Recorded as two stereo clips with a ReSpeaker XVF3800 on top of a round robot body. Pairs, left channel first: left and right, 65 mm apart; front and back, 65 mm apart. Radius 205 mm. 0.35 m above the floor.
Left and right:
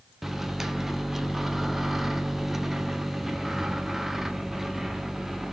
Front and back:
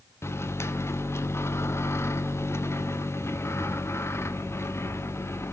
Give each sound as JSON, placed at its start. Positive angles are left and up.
{"t": 0.2, "sound": "a microwave", "azimuth_deg": -5, "distance_m": 1.0}